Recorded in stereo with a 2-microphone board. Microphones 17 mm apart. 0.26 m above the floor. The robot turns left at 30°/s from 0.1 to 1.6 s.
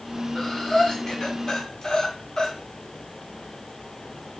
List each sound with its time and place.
0.3 s breathing: 40° left (ahead or behind), 2.5 m; by 2.5 s 60° left (ahead or behind), 2.5 m